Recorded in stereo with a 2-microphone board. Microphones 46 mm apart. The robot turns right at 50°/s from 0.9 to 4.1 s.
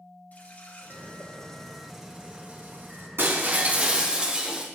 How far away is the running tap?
About 2.5 m.